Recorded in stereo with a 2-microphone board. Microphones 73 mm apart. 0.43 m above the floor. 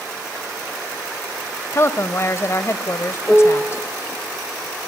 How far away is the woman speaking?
About 1.5 m.